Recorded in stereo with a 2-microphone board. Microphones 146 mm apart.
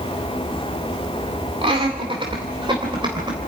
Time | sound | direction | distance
1.6 | laughter | 40° right (ahead or behind) | 2 m